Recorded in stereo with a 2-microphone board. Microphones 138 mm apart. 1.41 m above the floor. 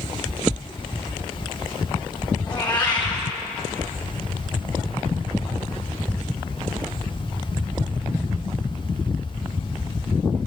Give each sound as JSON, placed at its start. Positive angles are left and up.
{"t": 2.5, "sound": "a cat meowing", "side_deg": 30, "distance_m": 1.0}